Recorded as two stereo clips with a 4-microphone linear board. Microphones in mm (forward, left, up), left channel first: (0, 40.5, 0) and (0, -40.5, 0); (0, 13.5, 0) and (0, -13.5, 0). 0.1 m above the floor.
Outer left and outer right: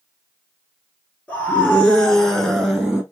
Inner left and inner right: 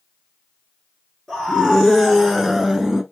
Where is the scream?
15° left (ahead or behind), 1.4 m; by 3.0 s 5° right (ahead or behind), 1.4 m.